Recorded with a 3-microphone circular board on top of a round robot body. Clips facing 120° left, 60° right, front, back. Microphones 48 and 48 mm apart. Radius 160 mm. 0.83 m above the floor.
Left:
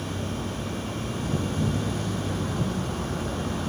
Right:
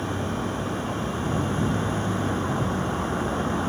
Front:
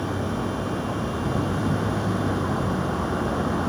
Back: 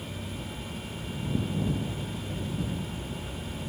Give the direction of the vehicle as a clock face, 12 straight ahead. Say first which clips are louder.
Right 4 dB, front 12 dB; 12 o'clock.